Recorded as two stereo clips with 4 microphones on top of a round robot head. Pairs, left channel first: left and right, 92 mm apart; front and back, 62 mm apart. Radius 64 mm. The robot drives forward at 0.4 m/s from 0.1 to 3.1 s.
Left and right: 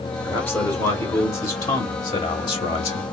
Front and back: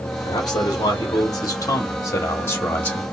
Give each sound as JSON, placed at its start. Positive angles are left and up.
{"t": 0.2, "sound": "a man speaking", "azimuth_deg": 25, "distance_m": 1.4}